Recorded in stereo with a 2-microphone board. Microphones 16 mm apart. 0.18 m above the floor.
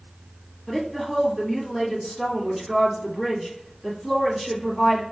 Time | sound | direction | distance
0.7 | a woman speaking | 5° right (ahead or behind) | 1.1 m